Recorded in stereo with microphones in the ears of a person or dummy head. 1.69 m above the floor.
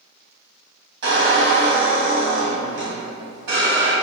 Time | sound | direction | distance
1.0 | a squeak | 60° right (ahead or behind) | 1.2 m